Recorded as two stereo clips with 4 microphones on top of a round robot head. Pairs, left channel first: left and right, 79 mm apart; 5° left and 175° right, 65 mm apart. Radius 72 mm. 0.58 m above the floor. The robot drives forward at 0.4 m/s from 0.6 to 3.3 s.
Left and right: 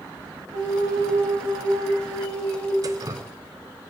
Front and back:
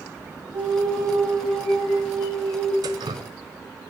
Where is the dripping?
145° right, 0.6 m; by 3.3 s 155° right, 0.7 m.